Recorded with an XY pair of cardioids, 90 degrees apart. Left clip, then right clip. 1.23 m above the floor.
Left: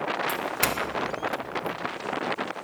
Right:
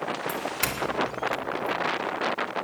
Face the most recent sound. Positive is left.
turn(degrees=30)